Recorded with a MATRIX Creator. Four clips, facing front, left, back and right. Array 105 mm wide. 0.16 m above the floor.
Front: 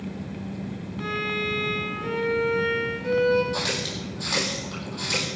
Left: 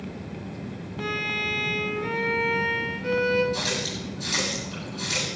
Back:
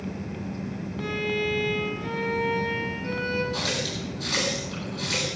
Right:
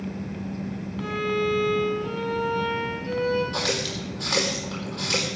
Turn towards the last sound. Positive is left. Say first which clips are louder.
# right 2 dB, even
turn(degrees=-80)